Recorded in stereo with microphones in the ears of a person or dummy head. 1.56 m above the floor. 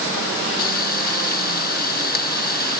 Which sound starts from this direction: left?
Frying, at 0.6 s.